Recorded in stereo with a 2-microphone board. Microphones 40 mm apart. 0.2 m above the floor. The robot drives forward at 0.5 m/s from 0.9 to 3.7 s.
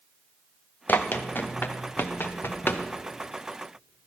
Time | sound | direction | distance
0.9 | running footsteps | 50° left (ahead or behind) | 1.6 m